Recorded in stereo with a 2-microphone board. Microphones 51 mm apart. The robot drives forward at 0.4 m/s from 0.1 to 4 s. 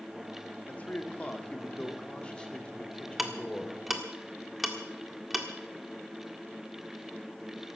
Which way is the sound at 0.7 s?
25° left (ahead or behind).